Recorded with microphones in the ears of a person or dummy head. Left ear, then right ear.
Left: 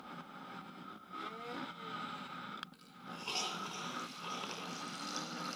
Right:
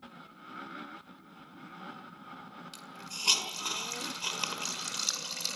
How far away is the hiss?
About 5.5 m.